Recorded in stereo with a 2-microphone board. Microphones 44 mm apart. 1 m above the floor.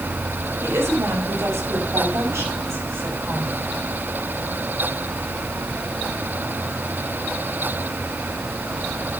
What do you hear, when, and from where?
0.6 s a woman speaking: 80° right, 5.5 m; by 3.8 s 75° right (ahead or behind), 9 m